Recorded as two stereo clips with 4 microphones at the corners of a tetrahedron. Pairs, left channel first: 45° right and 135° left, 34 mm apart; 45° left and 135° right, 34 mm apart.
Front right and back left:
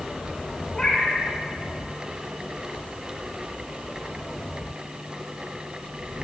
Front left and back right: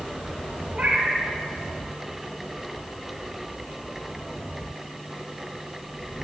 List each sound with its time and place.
0.7 s a cat meowing: 100° right, 1.1 m